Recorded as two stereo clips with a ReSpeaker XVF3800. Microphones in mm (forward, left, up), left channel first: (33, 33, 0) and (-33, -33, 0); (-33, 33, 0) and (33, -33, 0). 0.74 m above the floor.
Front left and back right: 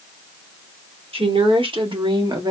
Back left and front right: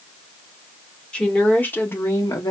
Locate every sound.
1.1 s a woman speaking: 145° right, 1.8 m; by 2.5 s 175° right, 1.2 m